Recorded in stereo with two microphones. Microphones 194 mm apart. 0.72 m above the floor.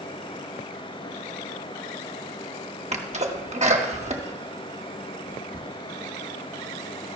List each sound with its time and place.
2.9 s a sneeze: 35° right (ahead or behind), 1.3 m